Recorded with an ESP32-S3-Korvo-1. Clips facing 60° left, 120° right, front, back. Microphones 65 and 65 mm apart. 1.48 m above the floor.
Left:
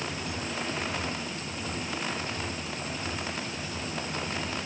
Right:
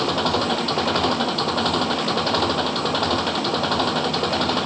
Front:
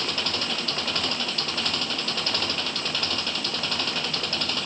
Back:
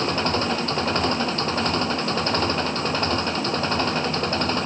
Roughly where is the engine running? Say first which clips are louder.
Right 14 dB, back 7 dB; behind right.